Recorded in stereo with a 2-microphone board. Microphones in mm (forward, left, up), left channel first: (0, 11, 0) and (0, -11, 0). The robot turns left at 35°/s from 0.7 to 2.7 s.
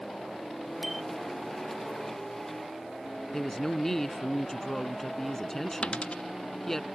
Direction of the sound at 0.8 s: 15° right (ahead or behind).